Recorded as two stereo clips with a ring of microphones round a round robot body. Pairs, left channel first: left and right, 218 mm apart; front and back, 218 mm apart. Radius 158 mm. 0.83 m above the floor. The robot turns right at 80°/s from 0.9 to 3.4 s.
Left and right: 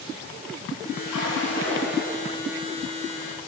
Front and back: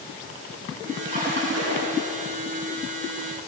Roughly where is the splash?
Behind left.